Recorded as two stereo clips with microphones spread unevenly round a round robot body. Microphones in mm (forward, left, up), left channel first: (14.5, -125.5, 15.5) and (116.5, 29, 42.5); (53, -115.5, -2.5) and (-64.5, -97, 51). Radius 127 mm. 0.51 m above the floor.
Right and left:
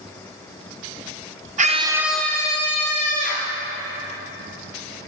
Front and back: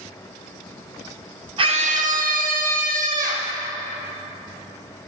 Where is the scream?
100° left, 1.1 m; by 3.5 s 170° right, 2.5 m.